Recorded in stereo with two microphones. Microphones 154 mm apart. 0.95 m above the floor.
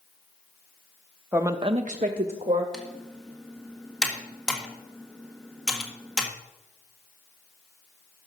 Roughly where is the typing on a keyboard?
Centre.